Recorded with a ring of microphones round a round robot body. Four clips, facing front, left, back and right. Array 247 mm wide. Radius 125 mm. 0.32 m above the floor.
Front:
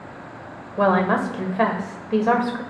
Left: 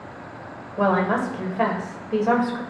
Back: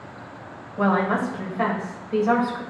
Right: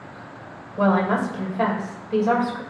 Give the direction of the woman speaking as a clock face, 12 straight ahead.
12 o'clock.